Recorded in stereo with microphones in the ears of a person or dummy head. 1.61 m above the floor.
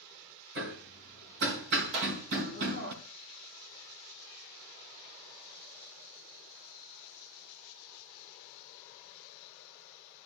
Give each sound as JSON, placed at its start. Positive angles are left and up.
{"t": 0.6, "sound": "hammering", "side_deg": -60, "distance_m": 3.5}
{"t": 1.9, "sound": "a clap", "side_deg": -70, "distance_m": 4.5}